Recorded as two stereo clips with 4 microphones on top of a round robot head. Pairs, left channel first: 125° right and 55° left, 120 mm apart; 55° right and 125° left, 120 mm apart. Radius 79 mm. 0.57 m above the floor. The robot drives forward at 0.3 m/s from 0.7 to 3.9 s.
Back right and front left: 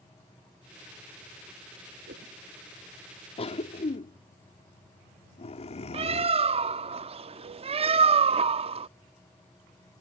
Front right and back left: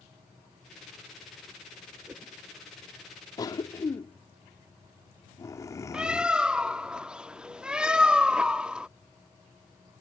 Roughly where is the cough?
Right.